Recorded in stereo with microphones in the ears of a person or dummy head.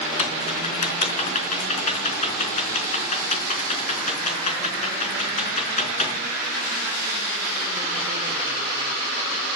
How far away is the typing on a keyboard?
About 3.5 m.